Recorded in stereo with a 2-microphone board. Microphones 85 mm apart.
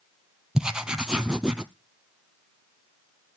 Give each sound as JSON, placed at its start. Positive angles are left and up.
{"t": 0.6, "sound": "writing", "side_deg": -10, "distance_m": 0.7}